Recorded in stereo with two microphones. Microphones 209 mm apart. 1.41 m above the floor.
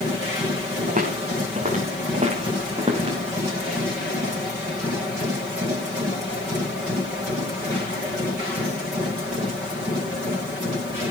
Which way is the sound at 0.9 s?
40° right (ahead or behind).